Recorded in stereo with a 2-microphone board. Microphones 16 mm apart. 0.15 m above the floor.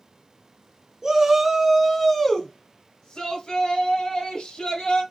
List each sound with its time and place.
1.0 s a shout: 35° right (ahead or behind), 1.3 m; by 5.0 s 65° left (ahead or behind), 3 m